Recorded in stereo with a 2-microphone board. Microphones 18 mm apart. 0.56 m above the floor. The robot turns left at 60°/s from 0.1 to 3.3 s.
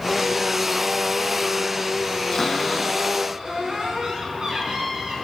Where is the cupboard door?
10° left, 5 m; by 5.1 s 50° right, 5 m.